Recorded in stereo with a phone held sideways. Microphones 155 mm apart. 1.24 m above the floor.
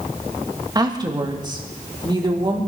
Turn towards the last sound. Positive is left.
turn(degrees=-30)  # may be behind; listen again after turning